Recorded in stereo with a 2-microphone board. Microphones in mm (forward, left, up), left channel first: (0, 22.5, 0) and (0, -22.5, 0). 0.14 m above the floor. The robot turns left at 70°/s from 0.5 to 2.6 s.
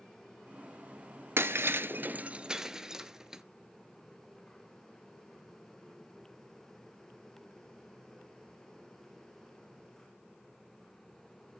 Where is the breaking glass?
65° right (ahead or behind), 0.5 m; by 3.4 s 15° right (ahead or behind), 0.5 m.